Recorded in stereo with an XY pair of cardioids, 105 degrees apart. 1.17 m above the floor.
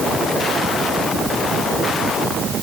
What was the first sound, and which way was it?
Only background noise.